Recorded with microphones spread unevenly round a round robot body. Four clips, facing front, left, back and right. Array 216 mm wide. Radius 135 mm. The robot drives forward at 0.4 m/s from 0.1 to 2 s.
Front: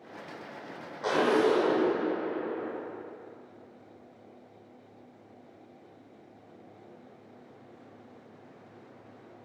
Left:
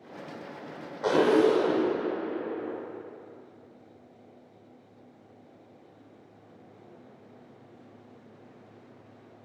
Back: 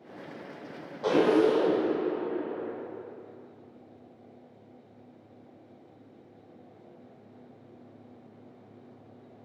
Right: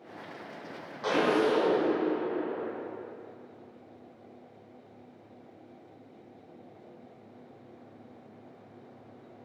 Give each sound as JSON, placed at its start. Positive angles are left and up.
{"t": 1.0, "sound": "a zipper", "azimuth_deg": 140, "distance_m": 0.6}